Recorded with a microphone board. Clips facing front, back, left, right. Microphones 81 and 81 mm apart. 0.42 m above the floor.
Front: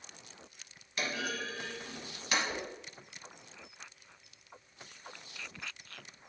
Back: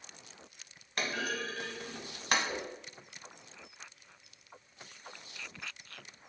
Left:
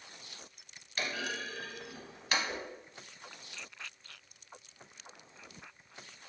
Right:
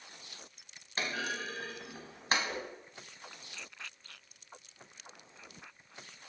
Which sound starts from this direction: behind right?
A clunk, at 1.0 s.